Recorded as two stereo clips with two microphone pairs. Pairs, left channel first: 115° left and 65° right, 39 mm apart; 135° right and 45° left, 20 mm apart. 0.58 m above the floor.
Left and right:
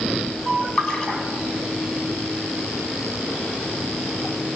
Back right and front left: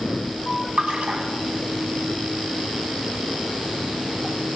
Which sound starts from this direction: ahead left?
A splash, at 0.8 s.